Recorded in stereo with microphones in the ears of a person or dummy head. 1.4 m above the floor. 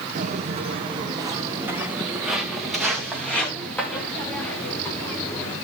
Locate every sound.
0.1 s footsteps: 40° right (ahead or behind), 3.5 m; by 5.5 s 20° left (ahead or behind), 9 m